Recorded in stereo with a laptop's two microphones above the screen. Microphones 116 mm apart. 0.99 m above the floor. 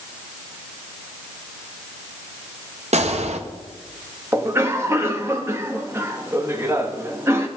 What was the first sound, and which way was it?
A gunshot, 70° right (ahead or behind).